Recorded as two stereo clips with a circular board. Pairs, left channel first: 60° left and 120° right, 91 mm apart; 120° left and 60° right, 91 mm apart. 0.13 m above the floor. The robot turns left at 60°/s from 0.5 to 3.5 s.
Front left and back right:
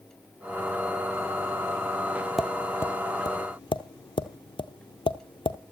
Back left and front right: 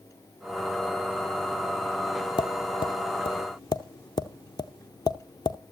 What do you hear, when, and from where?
2.4 s tapping: 150° left, 0.6 m; by 5.6 s 80° left, 0.6 m